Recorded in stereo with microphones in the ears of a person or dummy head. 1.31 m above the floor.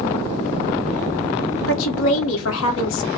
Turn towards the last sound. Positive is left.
turn(degrees=75)  # may be behind; listen again after turning